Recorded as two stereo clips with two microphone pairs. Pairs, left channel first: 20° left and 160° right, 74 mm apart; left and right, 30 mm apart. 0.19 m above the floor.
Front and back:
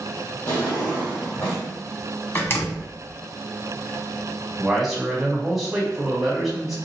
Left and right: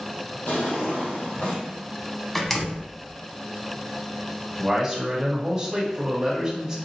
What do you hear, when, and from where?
0.5 s a drawer: 80° left, 2 m
2.4 s a door slam: 5° left, 0.8 m
4.6 s a man speaking: 75° right, 1.4 m